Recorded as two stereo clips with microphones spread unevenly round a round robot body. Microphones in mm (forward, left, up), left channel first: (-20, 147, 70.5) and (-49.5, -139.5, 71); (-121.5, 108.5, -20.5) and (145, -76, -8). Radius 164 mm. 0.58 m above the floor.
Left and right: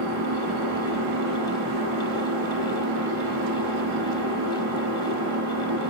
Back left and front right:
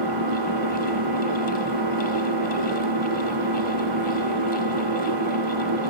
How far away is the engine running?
About 0.8 m.